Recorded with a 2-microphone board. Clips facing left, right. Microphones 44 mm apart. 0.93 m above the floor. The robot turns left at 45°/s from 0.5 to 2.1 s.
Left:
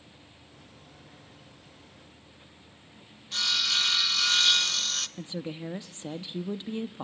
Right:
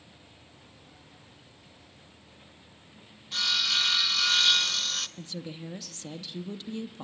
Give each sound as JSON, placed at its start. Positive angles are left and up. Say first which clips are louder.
{"t": 3.3, "sound": "sawing", "louder": "even", "side_deg": -5, "distance_m": 0.7}
{"t": 5.2, "sound": "a woman speaking", "louder": "left 3 dB", "side_deg": 25, "distance_m": 1.0}